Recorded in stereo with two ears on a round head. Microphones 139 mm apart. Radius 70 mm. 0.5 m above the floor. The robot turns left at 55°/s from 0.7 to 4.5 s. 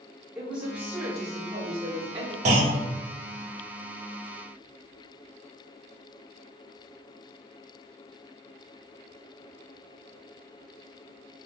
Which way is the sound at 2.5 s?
50° right (ahead or behind).